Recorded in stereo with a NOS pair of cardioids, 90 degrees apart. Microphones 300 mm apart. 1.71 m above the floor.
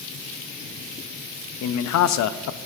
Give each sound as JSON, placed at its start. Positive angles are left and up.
{"t": 1.6, "sound": "a man speaking", "azimuth_deg": 65, "distance_m": 0.6}